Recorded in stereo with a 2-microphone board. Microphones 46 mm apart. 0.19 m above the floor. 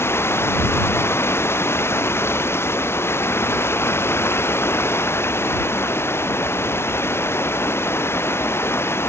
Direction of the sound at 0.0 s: 70° left (ahead or behind).